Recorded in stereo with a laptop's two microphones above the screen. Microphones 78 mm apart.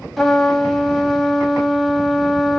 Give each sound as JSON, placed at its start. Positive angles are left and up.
{"t": 0.2, "sound": "a trumpet", "side_deg": 5, "distance_m": 1.0}